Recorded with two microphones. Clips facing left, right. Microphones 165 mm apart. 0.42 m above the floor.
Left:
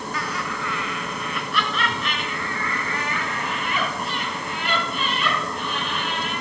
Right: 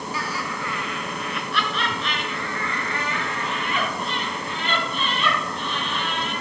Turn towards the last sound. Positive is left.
turn(degrees=10)  # may be behind; listen again after turning